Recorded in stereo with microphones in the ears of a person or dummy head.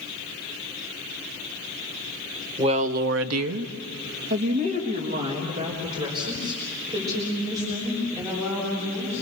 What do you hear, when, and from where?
2.6 s a woman speaking: 25° right (ahead or behind), 1.1 m